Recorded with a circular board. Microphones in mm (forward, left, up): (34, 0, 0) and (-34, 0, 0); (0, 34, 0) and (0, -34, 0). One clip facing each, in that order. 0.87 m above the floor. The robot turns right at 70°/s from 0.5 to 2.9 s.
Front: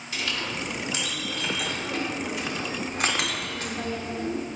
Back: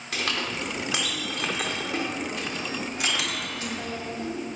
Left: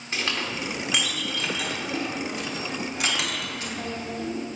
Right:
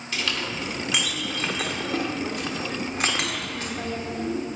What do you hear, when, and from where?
0.1 s a clink: 150° left, 1.2 m; by 4.5 s 45° right, 1.2 m